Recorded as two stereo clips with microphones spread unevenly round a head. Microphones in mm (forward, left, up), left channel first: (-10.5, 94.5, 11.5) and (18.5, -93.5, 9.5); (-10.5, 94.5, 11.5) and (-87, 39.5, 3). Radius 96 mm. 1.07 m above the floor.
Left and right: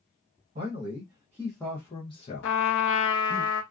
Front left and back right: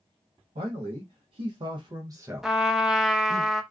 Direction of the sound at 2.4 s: 130° left.